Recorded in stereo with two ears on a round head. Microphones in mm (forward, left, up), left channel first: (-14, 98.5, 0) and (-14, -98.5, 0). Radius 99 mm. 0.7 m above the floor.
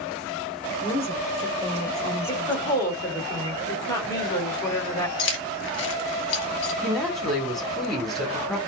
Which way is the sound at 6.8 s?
Centre (ahead or behind).